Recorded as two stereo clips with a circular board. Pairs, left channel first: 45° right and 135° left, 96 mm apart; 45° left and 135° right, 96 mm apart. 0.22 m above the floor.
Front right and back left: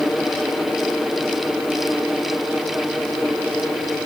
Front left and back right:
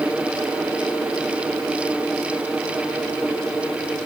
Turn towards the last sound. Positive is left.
No sound to turn to.